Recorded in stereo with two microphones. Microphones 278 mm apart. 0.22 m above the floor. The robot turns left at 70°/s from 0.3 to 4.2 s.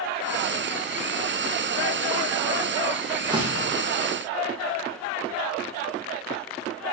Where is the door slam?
10° right, 5.5 m; by 3.8 s 45° right, 5.5 m.